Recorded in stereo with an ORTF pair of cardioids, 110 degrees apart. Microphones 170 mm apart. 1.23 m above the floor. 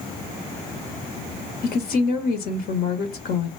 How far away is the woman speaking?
About 1.1 m.